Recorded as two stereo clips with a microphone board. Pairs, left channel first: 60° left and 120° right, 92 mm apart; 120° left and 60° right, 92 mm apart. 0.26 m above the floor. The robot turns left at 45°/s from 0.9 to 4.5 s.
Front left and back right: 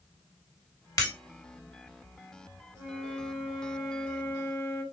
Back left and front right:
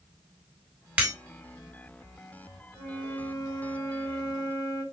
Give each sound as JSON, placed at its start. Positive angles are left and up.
{"t": 1.0, "sound": "breaking glass", "azimuth_deg": 10, "distance_m": 1.7}
{"t": 2.8, "sound": "a flute", "azimuth_deg": -160, "distance_m": 1.6}